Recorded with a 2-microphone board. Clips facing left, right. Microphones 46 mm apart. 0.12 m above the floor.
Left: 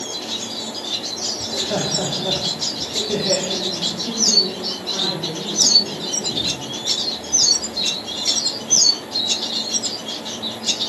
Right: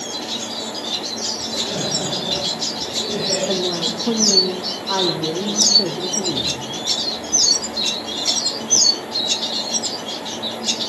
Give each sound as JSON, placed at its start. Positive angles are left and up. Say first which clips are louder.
{"t": 1.4, "sound": "laughter", "louder": "left 3 dB", "side_deg": 45, "distance_m": 7.5}
{"t": 3.5, "sound": "a woman speaking", "louder": "right 3 dB", "side_deg": -75, "distance_m": 5.0}